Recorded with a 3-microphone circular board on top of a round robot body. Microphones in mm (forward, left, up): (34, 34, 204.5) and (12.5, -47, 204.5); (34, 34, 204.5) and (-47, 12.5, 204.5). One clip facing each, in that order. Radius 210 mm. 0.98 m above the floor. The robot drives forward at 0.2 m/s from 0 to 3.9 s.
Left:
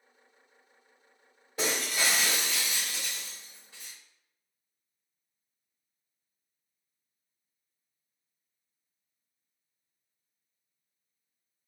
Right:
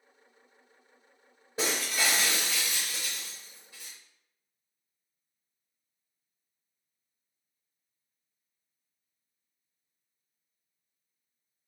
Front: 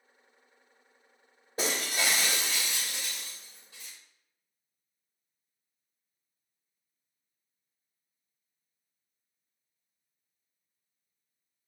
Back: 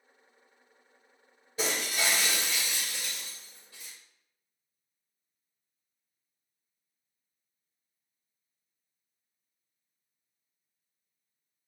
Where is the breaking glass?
45° right, 0.8 m; by 3.9 s 115° right, 0.7 m.